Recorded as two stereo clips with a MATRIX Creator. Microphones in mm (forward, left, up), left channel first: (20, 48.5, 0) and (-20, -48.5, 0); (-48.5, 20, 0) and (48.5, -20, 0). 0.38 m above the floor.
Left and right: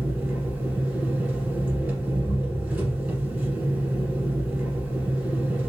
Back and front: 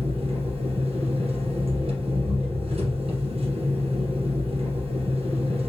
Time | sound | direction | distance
0.0 | an engine running | 40° right | 2 m